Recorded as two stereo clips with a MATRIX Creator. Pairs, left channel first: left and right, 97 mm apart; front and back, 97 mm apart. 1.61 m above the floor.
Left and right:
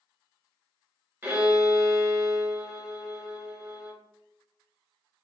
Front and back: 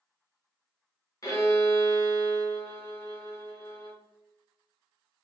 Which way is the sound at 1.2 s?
30° right.